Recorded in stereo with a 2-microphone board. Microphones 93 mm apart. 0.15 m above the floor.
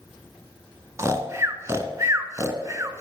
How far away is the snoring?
About 0.8 m.